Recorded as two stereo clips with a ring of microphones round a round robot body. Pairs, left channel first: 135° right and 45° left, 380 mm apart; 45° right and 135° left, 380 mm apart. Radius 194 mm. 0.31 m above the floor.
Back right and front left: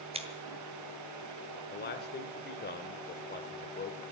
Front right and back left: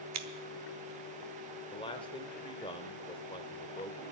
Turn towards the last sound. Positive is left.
turn(degrees=-105)